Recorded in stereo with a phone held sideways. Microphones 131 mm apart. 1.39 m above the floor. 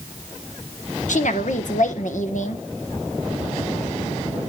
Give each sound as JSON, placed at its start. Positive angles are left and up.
{"t": 1.1, "sound": "a woman speaking", "side_deg": 70, "distance_m": 1.3}